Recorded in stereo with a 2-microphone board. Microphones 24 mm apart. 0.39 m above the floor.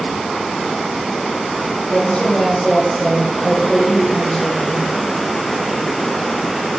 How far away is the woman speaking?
About 1.4 m.